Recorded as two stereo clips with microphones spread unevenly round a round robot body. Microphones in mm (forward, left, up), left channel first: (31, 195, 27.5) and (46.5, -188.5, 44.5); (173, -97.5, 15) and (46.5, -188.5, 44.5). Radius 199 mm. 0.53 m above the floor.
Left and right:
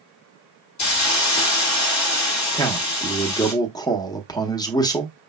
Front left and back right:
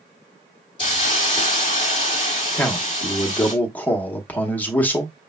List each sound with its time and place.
0.8 s a hiss: 70° left, 0.9 m
2.5 s a man speaking: 40° left, 0.8 m